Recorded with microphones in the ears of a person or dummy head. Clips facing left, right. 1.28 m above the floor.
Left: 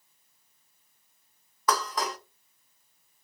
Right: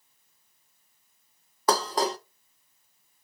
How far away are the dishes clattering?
About 0.5 m.